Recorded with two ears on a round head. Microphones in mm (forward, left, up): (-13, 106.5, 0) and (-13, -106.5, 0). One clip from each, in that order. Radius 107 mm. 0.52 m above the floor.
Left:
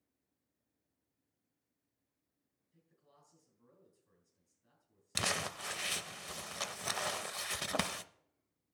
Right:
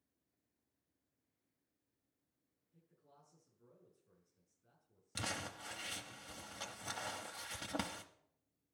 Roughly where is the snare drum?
No snare drum in this recording.